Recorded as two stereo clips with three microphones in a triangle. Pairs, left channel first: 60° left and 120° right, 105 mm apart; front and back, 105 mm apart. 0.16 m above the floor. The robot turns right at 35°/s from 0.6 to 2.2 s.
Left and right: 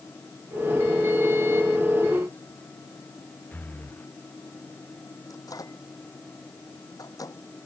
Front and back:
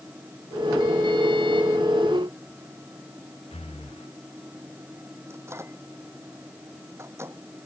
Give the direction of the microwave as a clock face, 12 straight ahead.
8 o'clock.